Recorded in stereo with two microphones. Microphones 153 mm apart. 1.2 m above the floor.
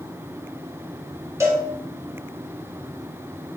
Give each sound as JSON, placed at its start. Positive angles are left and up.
{"t": 1.4, "sound": "a cowbell", "side_deg": -15, "distance_m": 1.2}